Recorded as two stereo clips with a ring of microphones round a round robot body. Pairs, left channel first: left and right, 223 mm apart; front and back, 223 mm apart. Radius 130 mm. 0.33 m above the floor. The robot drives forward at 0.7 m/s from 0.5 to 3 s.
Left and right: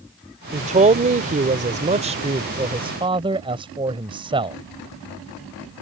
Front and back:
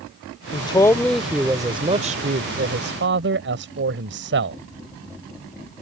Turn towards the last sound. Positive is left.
turn(degrees=-155)